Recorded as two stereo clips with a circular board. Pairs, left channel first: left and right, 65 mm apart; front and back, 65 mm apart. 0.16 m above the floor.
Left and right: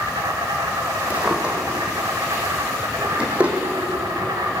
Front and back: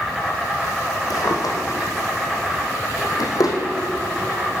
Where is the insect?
90° right, 3 m.